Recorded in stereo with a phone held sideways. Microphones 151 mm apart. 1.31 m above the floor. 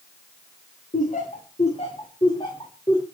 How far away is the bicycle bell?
No bicycle bell in this recording.